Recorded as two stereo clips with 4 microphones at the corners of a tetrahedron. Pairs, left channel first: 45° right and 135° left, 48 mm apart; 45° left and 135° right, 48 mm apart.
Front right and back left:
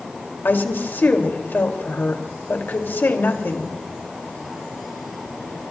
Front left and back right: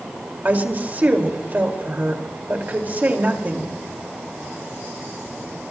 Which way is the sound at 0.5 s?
85° right.